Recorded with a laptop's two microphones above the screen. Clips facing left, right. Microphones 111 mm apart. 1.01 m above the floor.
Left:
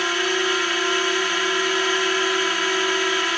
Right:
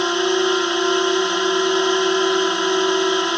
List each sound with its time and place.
0.0 s a drone: 20° right (ahead or behind)